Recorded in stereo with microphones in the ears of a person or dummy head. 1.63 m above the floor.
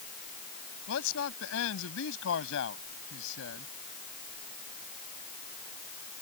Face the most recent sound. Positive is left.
turn(degrees=70)  # may be behind; listen again after turning